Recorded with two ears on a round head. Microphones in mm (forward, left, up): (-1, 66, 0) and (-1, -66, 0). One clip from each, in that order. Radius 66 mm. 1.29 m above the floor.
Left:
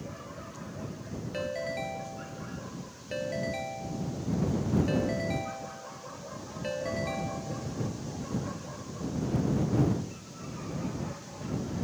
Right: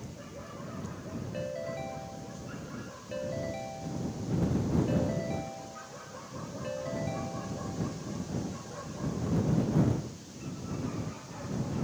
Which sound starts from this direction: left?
A ringtone, at 1.3 s.